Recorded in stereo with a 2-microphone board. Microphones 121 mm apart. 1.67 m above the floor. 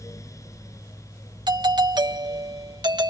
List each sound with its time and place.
1.5 s a doorbell: 35° right (ahead or behind)